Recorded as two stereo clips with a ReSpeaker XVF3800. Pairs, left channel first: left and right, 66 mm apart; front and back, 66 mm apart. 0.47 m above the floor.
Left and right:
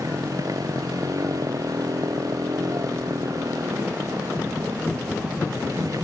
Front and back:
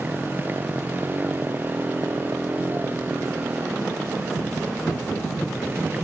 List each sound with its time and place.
0.0 s a motorcycle: 120° right